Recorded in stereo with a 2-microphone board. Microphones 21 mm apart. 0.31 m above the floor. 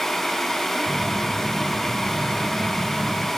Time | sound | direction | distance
0.9 | a phone buzzing | 20° right (ahead or behind) | 1.4 m